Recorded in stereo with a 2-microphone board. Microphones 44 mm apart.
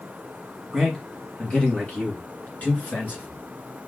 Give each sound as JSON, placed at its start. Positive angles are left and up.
{"t": 0.7, "sound": "a man speaking", "side_deg": 10, "distance_m": 1.5}